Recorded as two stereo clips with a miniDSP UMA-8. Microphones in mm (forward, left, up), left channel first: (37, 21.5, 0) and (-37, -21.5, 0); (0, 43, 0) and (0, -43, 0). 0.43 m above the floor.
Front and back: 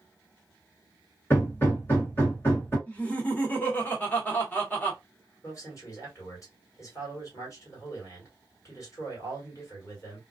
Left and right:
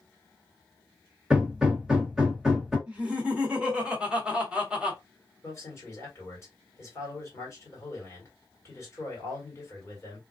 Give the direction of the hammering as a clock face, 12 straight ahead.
12 o'clock.